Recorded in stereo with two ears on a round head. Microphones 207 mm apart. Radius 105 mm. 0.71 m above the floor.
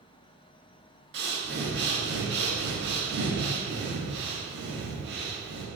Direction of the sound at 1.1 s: 50° right (ahead or behind).